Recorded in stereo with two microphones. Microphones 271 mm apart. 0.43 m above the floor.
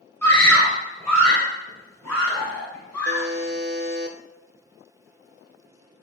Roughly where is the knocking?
I don't hear knocking.